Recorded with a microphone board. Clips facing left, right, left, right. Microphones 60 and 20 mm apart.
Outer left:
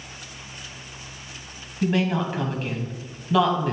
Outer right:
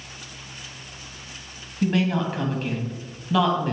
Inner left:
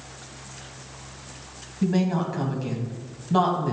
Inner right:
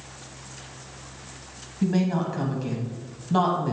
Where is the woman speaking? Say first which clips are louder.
Even, even; centre (ahead or behind), 1.1 m.